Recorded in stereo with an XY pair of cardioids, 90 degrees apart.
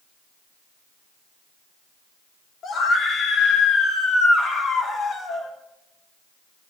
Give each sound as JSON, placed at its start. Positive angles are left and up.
{"t": 2.6, "sound": "a scream", "azimuth_deg": 70, "distance_m": 3.5}